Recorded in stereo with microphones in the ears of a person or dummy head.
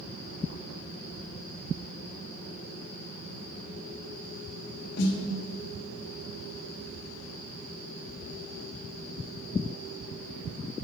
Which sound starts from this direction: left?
A snare drum, at 5.0 s.